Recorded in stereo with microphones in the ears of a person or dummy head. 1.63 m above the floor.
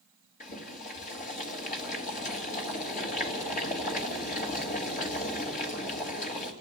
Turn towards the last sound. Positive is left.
turn(degrees=40)  # may be behind; listen again after turning